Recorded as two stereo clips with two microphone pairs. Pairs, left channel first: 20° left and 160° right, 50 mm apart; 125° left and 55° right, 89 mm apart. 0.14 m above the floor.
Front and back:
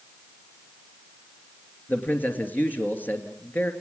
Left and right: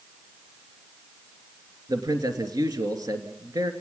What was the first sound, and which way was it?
A man speaking, 30° right.